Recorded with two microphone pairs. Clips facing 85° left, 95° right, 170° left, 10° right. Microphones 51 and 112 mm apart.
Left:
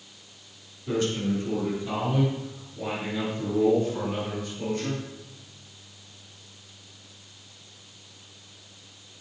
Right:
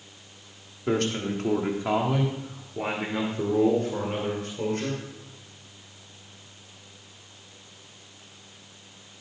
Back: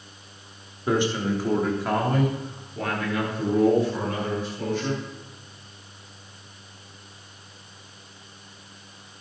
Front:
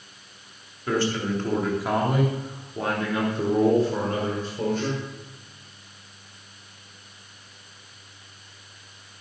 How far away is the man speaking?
About 3 m.